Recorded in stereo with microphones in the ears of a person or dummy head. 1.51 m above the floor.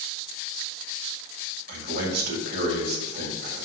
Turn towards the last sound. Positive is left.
turn(degrees=-65)  # may be behind; listen again after turning